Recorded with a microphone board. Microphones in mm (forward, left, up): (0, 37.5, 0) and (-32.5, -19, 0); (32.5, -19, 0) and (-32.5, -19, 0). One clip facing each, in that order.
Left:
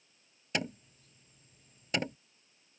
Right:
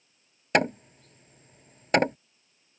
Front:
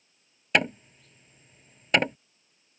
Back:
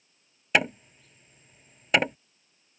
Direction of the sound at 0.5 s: 90° right.